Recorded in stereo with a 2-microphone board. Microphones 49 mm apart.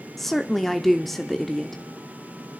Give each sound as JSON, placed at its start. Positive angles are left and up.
{"t": 0.2, "sound": "a woman speaking", "side_deg": 5, "distance_m": 0.9}